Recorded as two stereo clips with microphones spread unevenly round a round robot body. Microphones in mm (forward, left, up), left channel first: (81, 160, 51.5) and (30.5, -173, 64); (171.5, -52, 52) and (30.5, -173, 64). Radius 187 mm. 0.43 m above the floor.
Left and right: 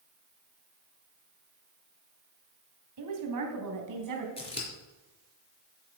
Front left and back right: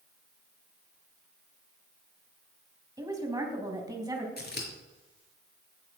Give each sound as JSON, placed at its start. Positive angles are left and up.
{"t": 3.0, "sound": "a woman speaking", "azimuth_deg": -65, "distance_m": 3.5}
{"t": 4.4, "sound": "scissors", "azimuth_deg": 10, "distance_m": 4.0}